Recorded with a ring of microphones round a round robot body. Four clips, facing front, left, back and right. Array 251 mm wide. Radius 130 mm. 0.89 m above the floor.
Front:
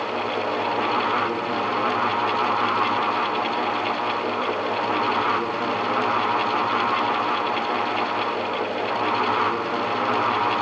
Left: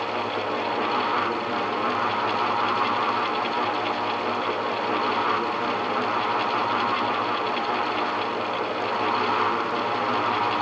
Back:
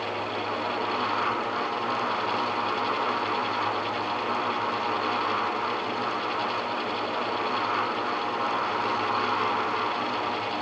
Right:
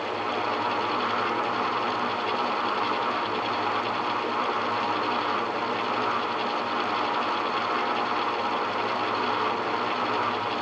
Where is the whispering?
I don't hear whispering.